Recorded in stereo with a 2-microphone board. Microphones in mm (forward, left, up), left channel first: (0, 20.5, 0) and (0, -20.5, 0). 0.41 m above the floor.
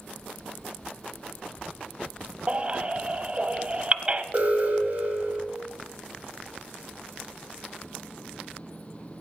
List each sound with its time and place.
2.5 s a baby crying: 25° right (ahead or behind), 0.9 m
4.3 s an alarm: 40° right (ahead or behind), 3 m